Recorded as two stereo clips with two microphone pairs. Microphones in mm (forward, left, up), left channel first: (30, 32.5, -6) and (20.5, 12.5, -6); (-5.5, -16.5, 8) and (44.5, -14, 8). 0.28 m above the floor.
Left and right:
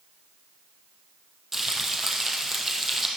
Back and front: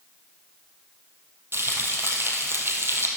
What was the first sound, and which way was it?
Frying, 35° right.